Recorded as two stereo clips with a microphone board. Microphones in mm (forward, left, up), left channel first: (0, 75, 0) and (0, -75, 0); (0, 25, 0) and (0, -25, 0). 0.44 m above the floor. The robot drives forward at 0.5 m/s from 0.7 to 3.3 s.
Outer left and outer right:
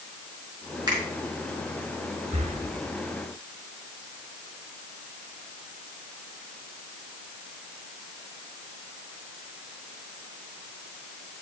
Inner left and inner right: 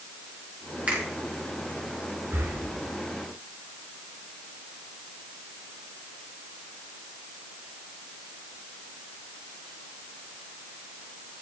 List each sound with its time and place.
0.9 s a finger snap: 25° right (ahead or behind), 4 m
2.3 s breathing: 50° right (ahead or behind), 1.3 m; by 2.6 s 45° right (ahead or behind), 1.4 m